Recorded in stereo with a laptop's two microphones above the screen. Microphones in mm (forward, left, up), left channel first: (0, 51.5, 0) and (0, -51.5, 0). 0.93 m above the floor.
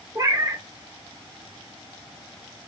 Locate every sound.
0.1 s a cat meowing: 35° right (ahead or behind), 1.1 m